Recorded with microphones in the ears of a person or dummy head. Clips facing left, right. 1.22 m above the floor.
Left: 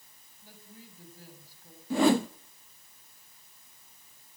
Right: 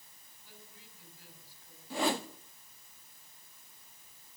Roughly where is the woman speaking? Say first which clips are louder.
Left 6 dB; left.